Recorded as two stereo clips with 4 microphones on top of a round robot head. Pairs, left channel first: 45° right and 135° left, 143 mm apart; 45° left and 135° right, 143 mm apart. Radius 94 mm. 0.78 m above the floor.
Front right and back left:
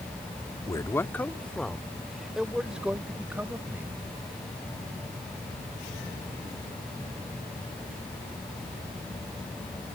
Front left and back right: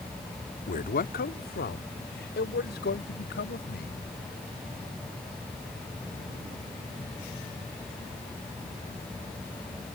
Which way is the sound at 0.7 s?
20° left.